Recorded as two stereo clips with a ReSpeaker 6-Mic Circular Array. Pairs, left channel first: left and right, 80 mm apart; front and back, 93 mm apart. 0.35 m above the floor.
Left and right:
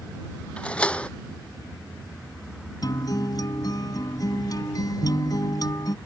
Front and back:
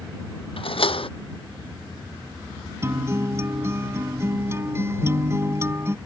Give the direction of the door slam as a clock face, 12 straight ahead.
12 o'clock.